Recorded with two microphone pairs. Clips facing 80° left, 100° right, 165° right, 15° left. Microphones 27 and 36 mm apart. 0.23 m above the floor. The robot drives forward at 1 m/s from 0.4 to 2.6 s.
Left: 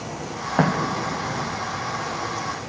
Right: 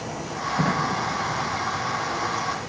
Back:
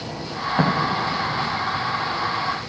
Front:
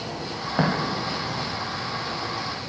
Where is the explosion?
105° left, 8 m; by 1.6 s 110° left, 8 m.